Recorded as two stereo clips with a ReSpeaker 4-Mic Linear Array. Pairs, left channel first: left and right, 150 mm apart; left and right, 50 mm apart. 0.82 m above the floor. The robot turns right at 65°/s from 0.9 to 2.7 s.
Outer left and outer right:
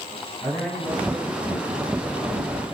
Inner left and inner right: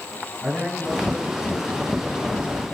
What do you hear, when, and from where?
0.4 s a man speaking: 175° left, 7.5 m; by 2.5 s 85° right, 7.5 m